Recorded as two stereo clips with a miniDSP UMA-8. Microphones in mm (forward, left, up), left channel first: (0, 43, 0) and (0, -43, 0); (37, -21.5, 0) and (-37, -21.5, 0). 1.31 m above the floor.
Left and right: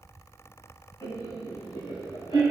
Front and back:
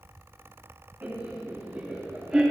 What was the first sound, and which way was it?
Laughter, 120° left.